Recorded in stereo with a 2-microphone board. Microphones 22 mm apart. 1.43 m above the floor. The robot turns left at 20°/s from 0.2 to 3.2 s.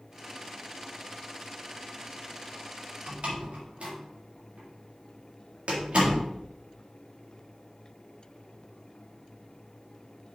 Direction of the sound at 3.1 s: 65° right (ahead or behind).